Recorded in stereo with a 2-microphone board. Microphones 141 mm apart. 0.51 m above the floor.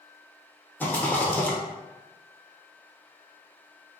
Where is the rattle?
15° left (ahead or behind), 0.9 m.